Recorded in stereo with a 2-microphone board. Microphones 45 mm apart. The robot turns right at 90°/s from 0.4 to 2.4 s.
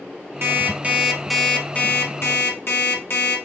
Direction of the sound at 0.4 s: 75° right.